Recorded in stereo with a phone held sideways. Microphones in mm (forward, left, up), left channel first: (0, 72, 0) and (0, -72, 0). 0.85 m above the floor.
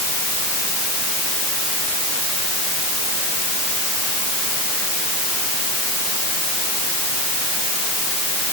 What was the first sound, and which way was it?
Only background noise.